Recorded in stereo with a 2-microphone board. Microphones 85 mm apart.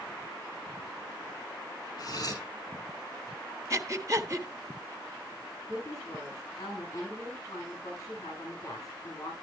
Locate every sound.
2.0 s cutlery clinking: 50° left (ahead or behind), 7 m
3.7 s breathing: 40° right (ahead or behind), 1.3 m
5.7 s a woman speaking: 40° left (ahead or behind), 7.5 m